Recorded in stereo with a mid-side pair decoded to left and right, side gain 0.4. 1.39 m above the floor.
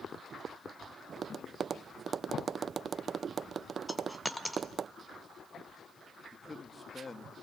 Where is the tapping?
50° right, 0.5 m.